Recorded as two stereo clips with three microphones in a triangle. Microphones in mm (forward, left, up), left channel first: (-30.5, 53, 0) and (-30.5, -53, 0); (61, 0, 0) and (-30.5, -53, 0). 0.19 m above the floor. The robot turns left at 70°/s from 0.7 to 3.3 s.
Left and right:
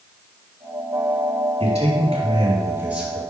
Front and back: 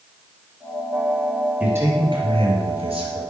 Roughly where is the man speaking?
Right.